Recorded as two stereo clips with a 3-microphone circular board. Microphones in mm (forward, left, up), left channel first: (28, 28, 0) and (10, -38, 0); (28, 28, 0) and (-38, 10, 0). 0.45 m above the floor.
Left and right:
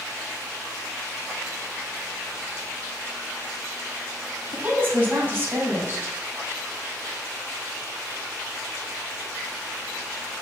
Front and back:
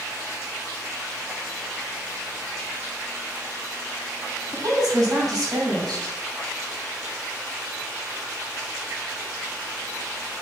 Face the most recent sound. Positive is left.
turn(degrees=-165)